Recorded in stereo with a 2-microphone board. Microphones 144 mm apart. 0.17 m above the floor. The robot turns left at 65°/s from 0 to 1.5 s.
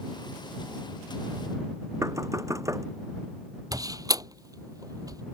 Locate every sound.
2.0 s knocking: 20° right (ahead or behind)
3.7 s a door slam: 25° right (ahead or behind)